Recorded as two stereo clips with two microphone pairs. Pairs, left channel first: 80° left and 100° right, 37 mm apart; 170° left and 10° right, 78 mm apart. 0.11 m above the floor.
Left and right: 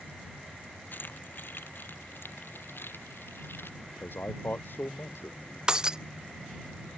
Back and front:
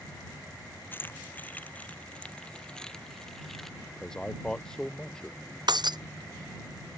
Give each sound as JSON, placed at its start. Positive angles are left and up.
{"t": 0.9, "sound": "keys jangling", "azimuth_deg": 110}
{"t": 3.8, "sound": "a man speaking", "azimuth_deg": 90}
{"t": 5.7, "sound": "breaking glass", "azimuth_deg": -30}